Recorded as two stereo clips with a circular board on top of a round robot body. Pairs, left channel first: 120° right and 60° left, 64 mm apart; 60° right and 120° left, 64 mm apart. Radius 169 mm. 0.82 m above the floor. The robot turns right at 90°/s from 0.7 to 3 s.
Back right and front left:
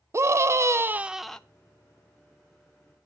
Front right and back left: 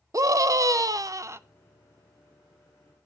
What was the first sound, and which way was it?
A scream, 100° left.